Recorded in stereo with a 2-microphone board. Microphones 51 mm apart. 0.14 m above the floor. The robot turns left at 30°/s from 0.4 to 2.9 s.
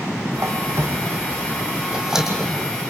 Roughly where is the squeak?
Right.